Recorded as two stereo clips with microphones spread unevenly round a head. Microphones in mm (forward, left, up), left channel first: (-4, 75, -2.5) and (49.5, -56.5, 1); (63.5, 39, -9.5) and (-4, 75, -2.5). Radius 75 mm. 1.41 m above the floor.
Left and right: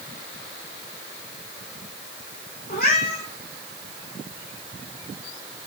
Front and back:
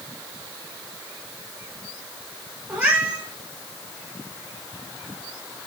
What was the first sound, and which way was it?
A cat meowing, 90° left.